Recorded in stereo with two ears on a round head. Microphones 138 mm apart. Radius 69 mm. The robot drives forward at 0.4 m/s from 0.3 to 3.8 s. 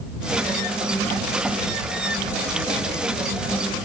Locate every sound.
Only background noise.